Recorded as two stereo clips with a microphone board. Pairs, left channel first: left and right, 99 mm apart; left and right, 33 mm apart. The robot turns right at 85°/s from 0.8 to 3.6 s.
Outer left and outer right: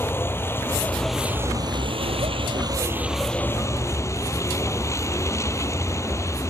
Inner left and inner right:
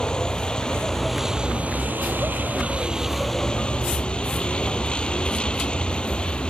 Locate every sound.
0.0 s a vehicle: 155° left; by 6.5 s 30° left